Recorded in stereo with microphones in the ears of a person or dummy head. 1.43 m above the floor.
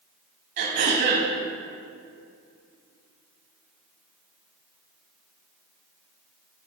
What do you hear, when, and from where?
0.6 s throat clearing: 55° right (ahead or behind), 4 m